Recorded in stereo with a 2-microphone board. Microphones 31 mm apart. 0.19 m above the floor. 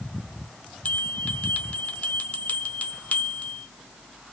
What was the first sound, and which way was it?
A bell, 50° left (ahead or behind).